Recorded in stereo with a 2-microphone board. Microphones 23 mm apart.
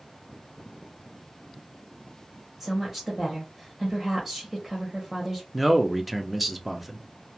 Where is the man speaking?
Centre (ahead or behind), 0.5 m.